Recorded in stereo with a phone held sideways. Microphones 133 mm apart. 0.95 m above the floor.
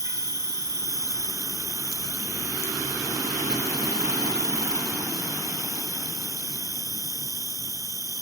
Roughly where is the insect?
Right.